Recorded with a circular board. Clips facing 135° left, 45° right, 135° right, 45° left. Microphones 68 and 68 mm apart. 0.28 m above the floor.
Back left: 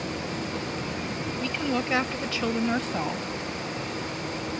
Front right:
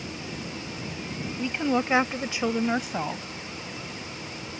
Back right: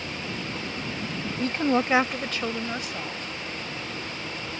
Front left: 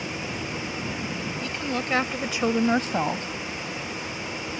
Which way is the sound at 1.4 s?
110° right.